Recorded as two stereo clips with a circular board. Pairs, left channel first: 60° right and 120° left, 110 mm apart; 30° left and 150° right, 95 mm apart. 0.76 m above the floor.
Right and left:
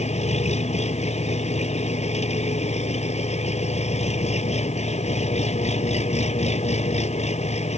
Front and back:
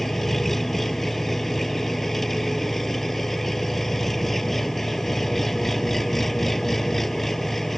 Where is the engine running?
60° right.